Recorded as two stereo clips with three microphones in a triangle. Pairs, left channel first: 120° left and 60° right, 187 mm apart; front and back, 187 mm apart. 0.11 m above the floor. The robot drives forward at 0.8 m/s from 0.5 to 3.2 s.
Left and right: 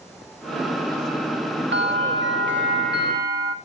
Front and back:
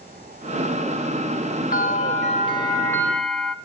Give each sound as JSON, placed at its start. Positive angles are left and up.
{"t": 1.7, "sound": "a bell", "azimuth_deg": -40, "distance_m": 1.6}